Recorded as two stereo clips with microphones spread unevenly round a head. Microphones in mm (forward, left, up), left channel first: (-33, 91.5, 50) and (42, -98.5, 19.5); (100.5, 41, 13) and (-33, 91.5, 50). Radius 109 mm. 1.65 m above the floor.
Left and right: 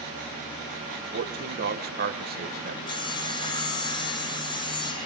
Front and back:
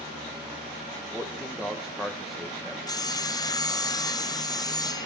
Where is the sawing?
45° left, 1.7 m.